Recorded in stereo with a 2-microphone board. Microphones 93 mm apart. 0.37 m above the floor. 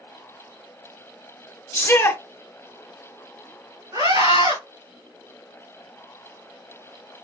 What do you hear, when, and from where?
1.7 s a shout: 30° left (ahead or behind), 1.2 m
3.9 s a scream: 55° right (ahead or behind), 2.5 m